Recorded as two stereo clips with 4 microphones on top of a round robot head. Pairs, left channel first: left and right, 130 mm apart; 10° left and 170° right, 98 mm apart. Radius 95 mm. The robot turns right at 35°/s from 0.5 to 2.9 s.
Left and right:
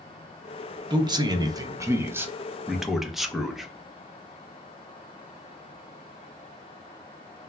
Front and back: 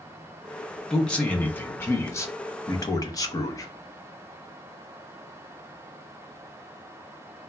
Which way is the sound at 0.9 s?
75° right.